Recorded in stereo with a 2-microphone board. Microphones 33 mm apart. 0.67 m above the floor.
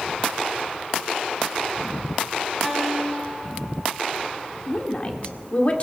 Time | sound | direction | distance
2.6 | a guitar | 5° left (ahead or behind) | 4.5 m
4.7 | a woman speaking | 40° left (ahead or behind) | 1.7 m